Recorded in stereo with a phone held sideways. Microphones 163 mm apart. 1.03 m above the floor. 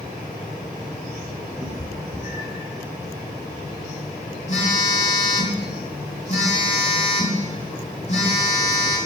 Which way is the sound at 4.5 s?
45° left (ahead or behind).